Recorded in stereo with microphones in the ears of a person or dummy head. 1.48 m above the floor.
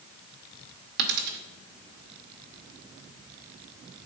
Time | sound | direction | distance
1.0 | a dropped coin | 60° right (ahead or behind) | 2 m